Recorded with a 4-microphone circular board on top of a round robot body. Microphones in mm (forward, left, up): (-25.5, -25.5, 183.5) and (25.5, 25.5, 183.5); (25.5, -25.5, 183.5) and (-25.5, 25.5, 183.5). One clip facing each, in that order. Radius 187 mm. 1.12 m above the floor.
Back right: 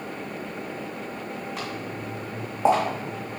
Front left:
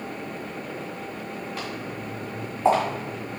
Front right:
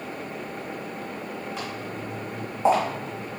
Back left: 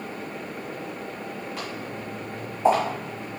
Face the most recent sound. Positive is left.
turn(degrees=-115)